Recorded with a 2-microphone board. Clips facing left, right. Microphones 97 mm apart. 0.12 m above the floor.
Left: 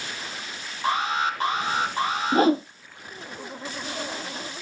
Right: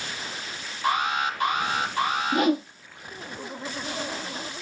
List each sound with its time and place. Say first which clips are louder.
0.8 s an alarm: even; 30° left (ahead or behind), 2.5 m
2.3 s a whoosh: left 4 dB; 30° left (ahead or behind), 0.6 m